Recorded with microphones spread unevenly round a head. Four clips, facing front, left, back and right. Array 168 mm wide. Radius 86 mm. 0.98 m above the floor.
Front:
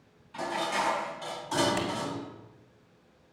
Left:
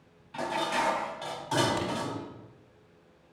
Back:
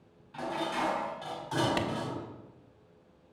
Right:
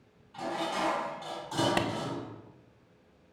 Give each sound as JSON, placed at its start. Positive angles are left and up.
{"t": 0.3, "sound": "dishes clattering", "azimuth_deg": 75, "distance_m": 4.5}
{"t": 1.8, "sound": "a clap", "azimuth_deg": -110, "distance_m": 1.5}